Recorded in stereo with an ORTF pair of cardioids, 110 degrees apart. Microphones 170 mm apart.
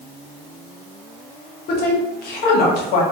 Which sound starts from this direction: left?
A woman speaking, at 1.7 s.